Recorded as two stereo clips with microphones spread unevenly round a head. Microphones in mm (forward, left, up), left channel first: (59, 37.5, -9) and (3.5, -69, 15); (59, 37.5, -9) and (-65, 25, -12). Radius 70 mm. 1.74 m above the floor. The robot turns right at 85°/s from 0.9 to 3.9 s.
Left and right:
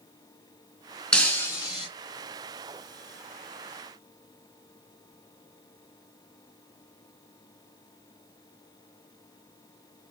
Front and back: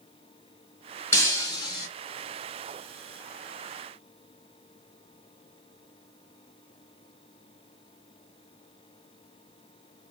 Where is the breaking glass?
40° right, 1.9 m; by 1.9 s 25° left, 1.9 m.